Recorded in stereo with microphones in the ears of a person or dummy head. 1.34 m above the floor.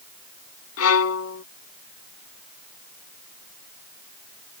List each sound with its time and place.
0.8 s a violin: 85° left